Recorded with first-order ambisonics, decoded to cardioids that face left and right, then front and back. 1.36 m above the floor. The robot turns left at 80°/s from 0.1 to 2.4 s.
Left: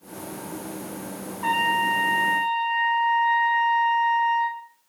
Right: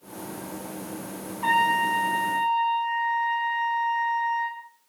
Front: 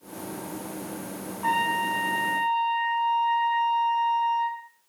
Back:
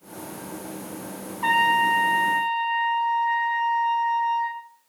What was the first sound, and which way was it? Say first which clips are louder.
A trumpet: even, back 5 dB; 170° right.